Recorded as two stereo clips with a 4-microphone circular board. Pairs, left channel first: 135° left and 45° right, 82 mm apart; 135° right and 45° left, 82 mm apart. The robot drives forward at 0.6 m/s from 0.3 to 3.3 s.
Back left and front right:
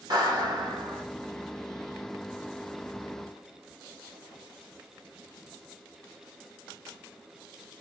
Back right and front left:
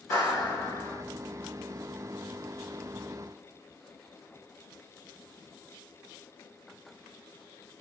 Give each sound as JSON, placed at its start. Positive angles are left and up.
{"t": 0.1, "sound": "a clap", "azimuth_deg": -80, "distance_m": 4.0}